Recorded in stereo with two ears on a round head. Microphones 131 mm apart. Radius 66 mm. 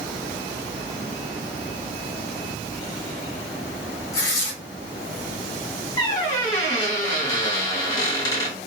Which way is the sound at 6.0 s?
25° left (ahead or behind).